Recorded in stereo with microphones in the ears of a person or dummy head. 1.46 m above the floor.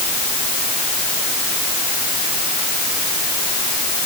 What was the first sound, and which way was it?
Only background noise.